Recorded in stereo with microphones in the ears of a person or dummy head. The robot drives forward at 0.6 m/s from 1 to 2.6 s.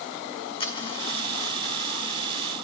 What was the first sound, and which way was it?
A dropped coin, 30° left (ahead or behind).